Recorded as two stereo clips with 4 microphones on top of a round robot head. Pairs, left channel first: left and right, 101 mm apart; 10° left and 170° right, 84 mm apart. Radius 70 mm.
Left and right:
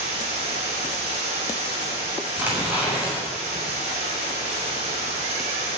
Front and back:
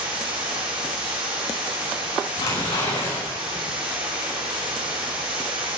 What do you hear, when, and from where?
0.0 s running water: 125° right, 5.5 m
2.4 s tearing paper: 15° right, 7.5 m